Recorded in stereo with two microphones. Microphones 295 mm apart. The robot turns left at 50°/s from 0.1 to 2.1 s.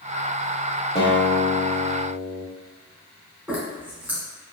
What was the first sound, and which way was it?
A guitar, 35° left.